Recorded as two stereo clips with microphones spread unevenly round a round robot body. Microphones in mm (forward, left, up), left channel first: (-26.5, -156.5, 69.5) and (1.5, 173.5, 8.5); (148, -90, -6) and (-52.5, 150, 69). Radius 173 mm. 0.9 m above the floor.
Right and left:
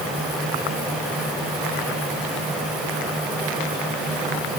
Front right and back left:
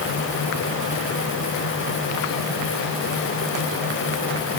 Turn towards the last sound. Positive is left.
No sound to turn to.